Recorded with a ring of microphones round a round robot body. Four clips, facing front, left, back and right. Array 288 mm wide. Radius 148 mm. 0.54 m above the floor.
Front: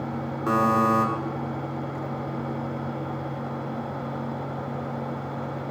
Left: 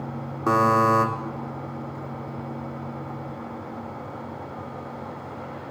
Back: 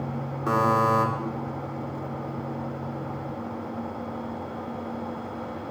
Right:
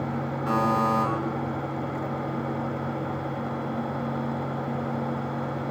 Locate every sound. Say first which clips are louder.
0.5 s a buzzer: left 5 dB, even; 90° left, 1.8 m